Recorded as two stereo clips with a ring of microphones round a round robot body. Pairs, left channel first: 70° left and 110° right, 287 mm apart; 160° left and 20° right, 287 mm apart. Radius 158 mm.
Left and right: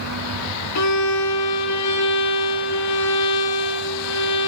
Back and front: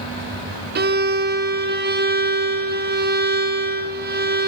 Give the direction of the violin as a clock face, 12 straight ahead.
11 o'clock.